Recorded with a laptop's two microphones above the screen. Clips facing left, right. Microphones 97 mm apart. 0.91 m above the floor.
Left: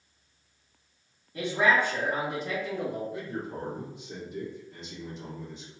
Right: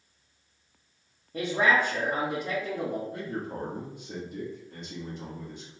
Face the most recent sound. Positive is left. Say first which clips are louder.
# right 1 dB
turn(degrees=-60)  # may be behind; listen again after turning